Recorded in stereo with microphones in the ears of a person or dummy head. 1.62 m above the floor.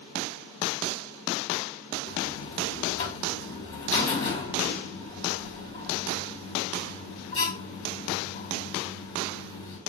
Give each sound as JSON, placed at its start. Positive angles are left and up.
{"t": 2.1, "sound": "a buzzer", "side_deg": 40, "distance_m": 2.0}